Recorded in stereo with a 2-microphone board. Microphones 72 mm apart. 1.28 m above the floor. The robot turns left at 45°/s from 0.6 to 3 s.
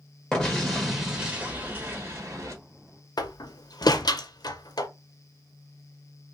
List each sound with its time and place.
0.3 s an explosion: 10° left, 1.3 m; by 2.5 s 75° right, 1.3 m
3.2 s a door slam: 70° left (ahead or behind), 0.6 m